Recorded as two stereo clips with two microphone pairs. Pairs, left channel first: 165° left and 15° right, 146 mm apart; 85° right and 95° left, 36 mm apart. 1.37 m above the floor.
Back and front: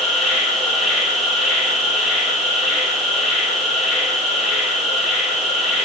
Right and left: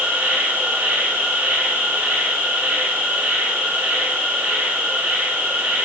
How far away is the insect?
About 4 m.